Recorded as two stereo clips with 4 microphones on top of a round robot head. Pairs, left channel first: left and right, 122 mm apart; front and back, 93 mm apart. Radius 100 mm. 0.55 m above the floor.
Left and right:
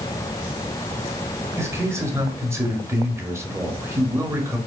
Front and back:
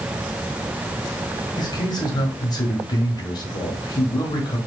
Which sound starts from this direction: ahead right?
A man speaking, at 1.6 s.